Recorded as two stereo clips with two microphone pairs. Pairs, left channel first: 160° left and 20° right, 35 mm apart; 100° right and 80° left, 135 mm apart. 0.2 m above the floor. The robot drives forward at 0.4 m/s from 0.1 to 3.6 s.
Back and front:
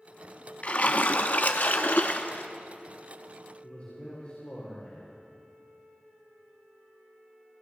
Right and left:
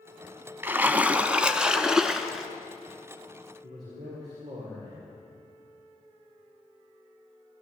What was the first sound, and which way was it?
A splash, 150° left.